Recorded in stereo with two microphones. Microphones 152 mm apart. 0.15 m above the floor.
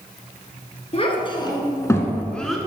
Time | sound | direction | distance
0.9 | a child speaking | 40° left (ahead or behind) | 1.3 m